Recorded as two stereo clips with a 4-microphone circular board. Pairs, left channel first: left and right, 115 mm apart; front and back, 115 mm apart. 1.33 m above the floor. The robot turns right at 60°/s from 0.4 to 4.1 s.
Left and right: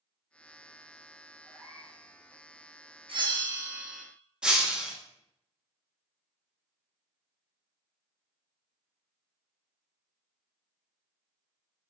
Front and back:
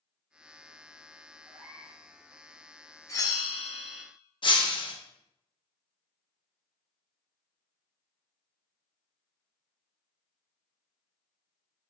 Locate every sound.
1.4 s a cat meowing: 175° left, 1.1 m; by 2.0 s 150° right, 1.1 m
3.1 s a bell: 60° right, 0.6 m; by 4.0 s straight ahead, 0.6 m
4.4 s breaking glass: 10° right, 0.7 m